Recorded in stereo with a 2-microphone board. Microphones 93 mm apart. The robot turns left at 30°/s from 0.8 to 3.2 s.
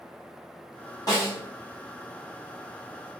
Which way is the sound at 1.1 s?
40° left (ahead or behind).